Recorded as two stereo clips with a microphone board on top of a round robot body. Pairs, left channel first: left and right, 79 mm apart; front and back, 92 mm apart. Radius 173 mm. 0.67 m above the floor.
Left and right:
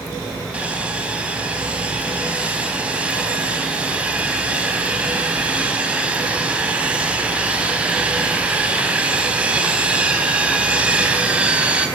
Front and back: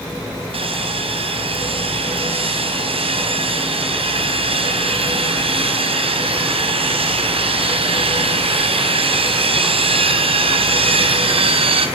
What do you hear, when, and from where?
0.5 s sawing: 165° right, 4 m